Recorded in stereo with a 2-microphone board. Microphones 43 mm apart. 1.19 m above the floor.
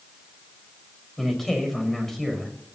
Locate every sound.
1.2 s a man speaking: 10° left (ahead or behind), 5.5 m